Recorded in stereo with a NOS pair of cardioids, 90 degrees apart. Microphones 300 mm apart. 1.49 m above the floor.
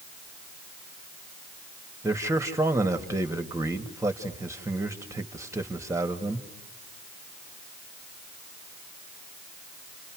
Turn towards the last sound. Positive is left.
turn(degrees=-10)